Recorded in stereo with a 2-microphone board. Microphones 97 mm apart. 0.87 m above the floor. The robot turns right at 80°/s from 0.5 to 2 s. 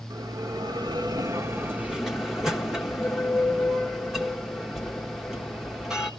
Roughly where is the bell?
Behind right.